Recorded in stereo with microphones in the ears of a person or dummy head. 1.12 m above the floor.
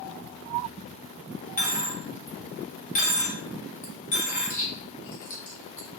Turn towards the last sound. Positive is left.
turn(degrees=40)  # may be behind; listen again after turning